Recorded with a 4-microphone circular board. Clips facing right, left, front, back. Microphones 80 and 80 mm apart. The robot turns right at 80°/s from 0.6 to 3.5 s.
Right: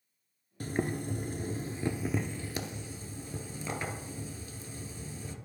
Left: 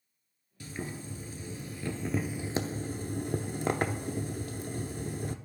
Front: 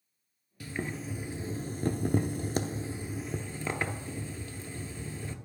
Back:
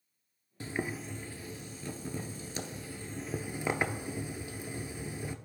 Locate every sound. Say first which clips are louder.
0.6 s boiling: right 7 dB, even; 125° right, 0.6 m; by 5.3 s 110° left, 0.6 m